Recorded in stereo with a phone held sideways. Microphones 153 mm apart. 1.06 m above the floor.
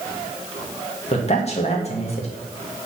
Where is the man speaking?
45° left (ahead or behind), 1.5 m.